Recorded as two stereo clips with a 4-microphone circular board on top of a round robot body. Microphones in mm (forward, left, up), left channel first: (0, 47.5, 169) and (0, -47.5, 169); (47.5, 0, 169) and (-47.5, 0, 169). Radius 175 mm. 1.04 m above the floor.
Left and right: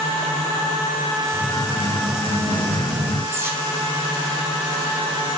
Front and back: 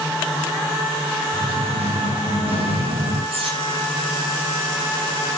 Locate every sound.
1.3 s singing: 175° left, 5 m
3.3 s cutlery clinking: 155° right, 1.8 m